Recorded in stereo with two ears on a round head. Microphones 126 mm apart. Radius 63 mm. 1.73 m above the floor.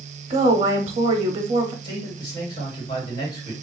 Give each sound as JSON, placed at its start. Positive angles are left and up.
{"t": 0.3, "sound": "a woman speaking", "side_deg": -40, "distance_m": 0.6}
{"t": 1.8, "sound": "a man speaking", "side_deg": 35, "distance_m": 1.8}